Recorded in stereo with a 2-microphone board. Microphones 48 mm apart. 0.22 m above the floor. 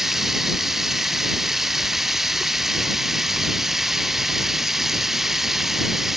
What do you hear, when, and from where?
0.0 s running water: 5° right (ahead or behind)